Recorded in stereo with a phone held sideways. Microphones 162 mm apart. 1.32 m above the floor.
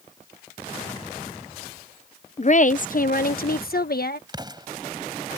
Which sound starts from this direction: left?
A woman speaking, at 2.4 s.